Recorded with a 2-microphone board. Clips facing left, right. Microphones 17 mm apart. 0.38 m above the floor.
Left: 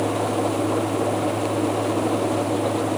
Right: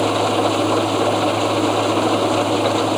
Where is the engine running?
65° right (ahead or behind).